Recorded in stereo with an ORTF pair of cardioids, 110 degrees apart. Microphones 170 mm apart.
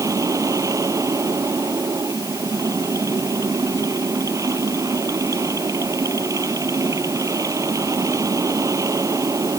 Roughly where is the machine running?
Ahead.